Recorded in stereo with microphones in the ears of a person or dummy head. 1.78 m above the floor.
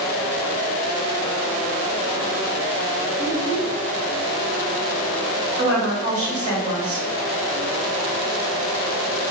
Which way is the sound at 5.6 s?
65° right (ahead or behind).